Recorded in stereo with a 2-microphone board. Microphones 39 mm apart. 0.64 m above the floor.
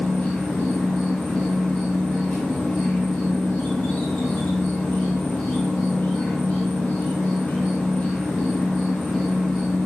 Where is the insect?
55° left (ahead or behind), 2.0 m.